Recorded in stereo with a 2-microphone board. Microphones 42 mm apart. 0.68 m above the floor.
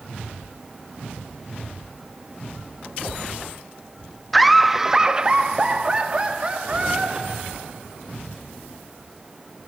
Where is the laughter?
5° left (ahead or behind), 0.6 m; by 7.8 s 30° right (ahead or behind), 1.7 m.